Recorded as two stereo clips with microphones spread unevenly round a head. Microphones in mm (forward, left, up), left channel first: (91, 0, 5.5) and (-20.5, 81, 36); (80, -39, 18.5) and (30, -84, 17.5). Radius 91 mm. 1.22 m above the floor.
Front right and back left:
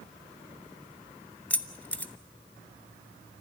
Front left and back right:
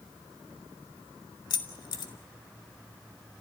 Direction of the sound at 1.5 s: 45° left.